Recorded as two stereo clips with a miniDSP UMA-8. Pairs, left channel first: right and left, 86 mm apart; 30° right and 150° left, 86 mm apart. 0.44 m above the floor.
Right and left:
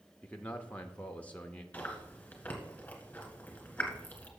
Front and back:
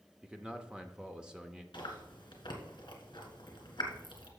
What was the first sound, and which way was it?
A man speaking, 145° right.